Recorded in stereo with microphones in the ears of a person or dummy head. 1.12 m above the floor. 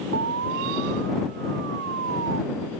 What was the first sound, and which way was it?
An alarm, 60° right (ahead or behind).